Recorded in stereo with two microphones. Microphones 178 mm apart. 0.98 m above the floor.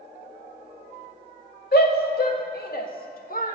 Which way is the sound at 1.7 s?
60° left (ahead or behind).